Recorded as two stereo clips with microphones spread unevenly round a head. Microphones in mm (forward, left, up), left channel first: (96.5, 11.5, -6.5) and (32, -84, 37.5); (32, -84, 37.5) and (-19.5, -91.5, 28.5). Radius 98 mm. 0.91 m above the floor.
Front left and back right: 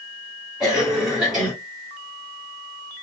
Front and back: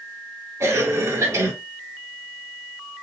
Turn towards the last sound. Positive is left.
turn(degrees=145)